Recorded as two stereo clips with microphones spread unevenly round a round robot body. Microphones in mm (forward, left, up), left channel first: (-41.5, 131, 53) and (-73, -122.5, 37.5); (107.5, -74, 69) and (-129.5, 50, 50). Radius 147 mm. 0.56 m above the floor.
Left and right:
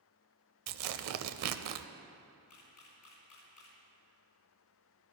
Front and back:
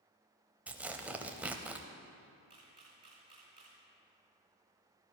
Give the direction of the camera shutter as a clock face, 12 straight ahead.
9 o'clock.